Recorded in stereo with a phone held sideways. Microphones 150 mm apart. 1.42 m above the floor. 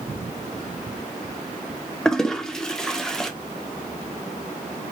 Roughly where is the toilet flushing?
Centre.